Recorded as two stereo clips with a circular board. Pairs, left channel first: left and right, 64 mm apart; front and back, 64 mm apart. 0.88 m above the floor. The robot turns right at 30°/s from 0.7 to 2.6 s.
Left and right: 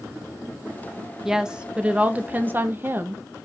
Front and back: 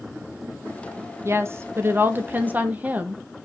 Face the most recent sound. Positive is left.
turn(degrees=-130)